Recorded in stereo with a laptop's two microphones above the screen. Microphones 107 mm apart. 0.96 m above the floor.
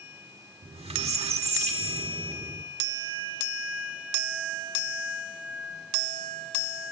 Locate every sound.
0.6 s a squeak: 80° right, 1.3 m